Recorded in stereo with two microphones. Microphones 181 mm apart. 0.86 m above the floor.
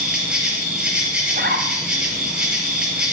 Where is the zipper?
55° right (ahead or behind), 4 m.